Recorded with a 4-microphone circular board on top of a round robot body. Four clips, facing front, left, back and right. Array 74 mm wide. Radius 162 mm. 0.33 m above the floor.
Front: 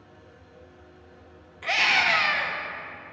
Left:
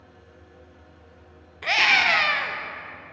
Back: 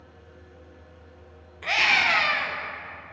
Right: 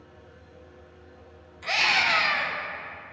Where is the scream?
90° left, 1.4 m.